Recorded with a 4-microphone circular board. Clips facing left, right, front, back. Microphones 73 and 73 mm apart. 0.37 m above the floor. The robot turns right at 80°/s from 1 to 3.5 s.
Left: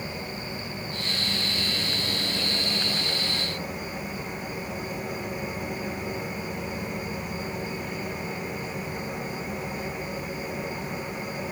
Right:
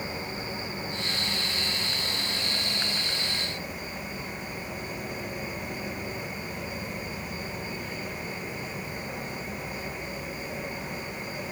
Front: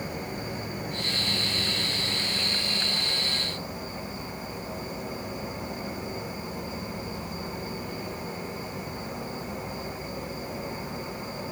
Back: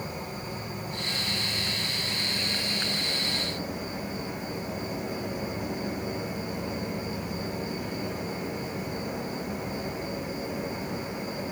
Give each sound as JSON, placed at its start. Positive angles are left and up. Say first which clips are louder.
{"t": 0.0, "sound": "an insect", "louder": "even, front 2 dB", "azimuth_deg": -20, "distance_m": 1.7}